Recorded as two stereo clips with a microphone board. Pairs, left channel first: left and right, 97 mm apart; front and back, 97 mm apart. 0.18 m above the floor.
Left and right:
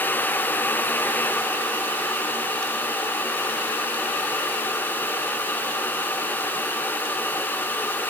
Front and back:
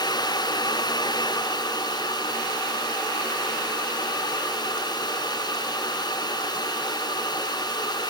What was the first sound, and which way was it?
Only background noise.